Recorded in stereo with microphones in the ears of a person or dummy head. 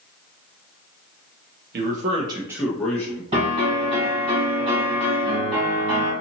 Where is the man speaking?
50° right (ahead or behind), 0.8 m; by 3.2 s 20° left (ahead or behind), 1.1 m.